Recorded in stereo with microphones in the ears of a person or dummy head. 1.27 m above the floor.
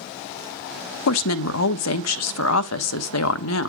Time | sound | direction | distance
1.1 | a woman speaking | 70° left (ahead or behind) | 0.8 m